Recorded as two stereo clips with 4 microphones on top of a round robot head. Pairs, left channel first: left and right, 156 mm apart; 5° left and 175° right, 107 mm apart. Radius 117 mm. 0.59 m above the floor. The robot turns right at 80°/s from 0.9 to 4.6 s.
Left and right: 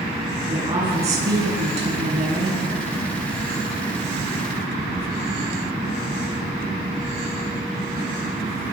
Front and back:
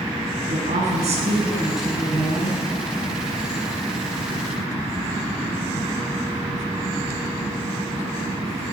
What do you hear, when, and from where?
0.5 s a woman speaking: 155° right, 7 m; by 2.6 s 20° right, 7 m